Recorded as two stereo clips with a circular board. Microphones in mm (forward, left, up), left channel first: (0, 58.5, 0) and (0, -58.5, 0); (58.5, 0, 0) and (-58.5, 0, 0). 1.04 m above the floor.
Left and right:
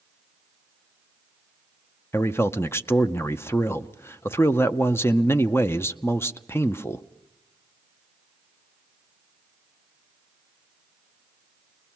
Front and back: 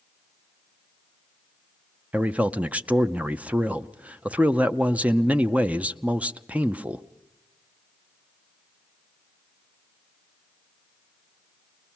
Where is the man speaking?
120° left, 0.6 m.